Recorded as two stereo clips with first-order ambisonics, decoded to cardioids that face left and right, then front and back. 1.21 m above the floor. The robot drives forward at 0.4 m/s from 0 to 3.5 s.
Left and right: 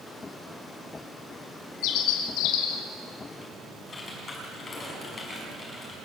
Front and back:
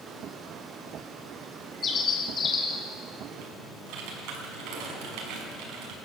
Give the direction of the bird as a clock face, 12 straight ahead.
10 o'clock.